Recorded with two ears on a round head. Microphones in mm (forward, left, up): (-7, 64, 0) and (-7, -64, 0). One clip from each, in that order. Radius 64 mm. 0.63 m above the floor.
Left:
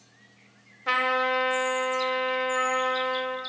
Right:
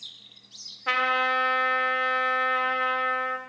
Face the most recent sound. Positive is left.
turn(degrees=-15)  # may be behind; listen again after turning